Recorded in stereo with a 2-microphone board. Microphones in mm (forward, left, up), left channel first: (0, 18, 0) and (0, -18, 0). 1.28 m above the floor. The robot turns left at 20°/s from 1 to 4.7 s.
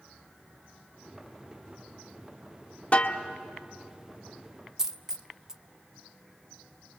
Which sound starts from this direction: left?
A snare drum, at 2.9 s.